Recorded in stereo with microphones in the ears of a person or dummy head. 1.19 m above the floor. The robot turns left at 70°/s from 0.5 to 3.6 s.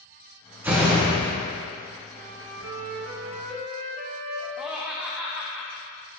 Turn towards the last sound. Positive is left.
turn(degrees=0)  # may be behind; listen again after turning